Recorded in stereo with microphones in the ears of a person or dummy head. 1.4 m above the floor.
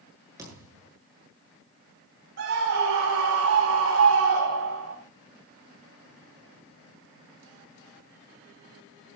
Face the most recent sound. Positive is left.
turn(degrees=-65)  # may be behind; listen again after turning